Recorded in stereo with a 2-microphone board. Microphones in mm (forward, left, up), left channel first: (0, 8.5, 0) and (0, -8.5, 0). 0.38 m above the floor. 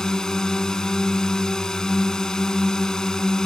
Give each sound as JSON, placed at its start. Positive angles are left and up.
{"t": 0.0, "sound": "a drone", "side_deg": 40}